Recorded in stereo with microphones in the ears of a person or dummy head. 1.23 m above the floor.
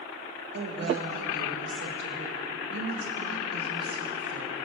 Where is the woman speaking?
65° right (ahead or behind), 2 m.